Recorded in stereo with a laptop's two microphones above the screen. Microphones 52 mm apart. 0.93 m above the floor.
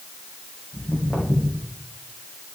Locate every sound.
0.7 s footsteps: 30° left (ahead or behind), 4 m